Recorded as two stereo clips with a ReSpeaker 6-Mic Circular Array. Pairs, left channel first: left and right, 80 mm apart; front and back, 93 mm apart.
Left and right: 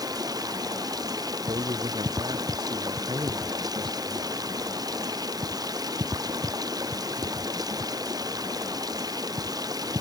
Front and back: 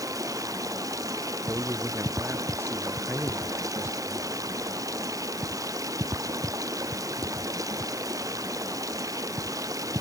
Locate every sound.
0.0 s running water: 130° right
1.5 s a man speaking: 110° right